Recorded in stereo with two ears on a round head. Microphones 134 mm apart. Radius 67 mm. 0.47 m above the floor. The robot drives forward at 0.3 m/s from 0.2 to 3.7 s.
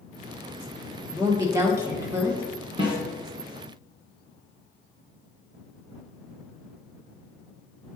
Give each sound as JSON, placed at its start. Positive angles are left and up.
{"t": 1.1, "sound": "a woman speaking", "side_deg": -20, "distance_m": 1.1}
{"t": 2.8, "sound": "a snare drum", "side_deg": -35, "distance_m": 1.7}